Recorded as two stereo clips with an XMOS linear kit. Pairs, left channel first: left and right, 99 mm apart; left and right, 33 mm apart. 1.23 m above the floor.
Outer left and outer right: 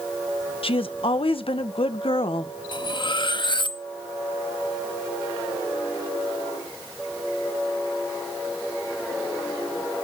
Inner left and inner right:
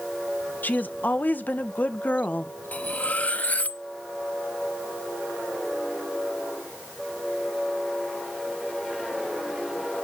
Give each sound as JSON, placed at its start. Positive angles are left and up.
{"t": 0.6, "sound": "a woman speaking", "side_deg": 65, "distance_m": 1.1}
{"t": 2.7, "sound": "cutlery clinking", "side_deg": 50, "distance_m": 0.8}